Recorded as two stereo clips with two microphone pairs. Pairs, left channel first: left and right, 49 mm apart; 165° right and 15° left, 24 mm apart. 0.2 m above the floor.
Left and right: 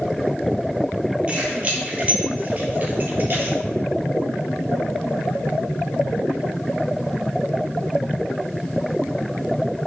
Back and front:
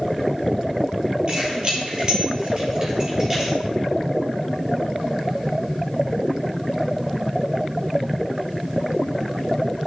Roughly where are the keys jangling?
Ahead right.